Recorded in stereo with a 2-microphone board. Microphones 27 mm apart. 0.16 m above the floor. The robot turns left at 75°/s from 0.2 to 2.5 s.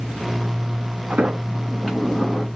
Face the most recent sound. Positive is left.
turn(degrees=140)